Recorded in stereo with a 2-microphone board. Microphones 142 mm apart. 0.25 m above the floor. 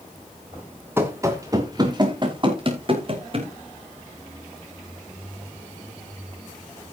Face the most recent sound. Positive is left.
turn(degrees=-45)  # may be behind; listen again after turning